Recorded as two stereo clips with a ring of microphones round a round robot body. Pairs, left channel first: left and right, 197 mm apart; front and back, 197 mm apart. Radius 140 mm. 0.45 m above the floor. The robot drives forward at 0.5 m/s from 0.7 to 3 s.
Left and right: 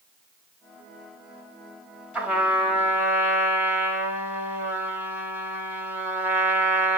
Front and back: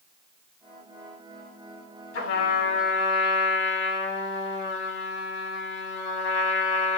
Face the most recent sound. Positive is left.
turn(degrees=-10)